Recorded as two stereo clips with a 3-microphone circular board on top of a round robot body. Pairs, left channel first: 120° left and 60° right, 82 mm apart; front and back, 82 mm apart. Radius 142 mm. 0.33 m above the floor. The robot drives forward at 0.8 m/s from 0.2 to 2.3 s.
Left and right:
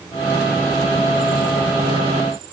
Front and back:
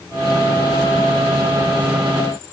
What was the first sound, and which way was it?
Only background noise.